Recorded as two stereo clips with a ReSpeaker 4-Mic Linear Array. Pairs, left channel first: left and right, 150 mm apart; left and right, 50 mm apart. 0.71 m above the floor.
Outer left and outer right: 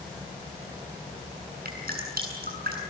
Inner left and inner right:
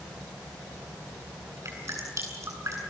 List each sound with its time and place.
1.6 s dripping: 75° right (ahead or behind), 7.5 m